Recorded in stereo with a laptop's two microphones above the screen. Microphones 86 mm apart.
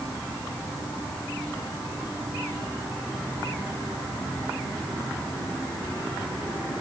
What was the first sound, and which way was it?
Only background noise.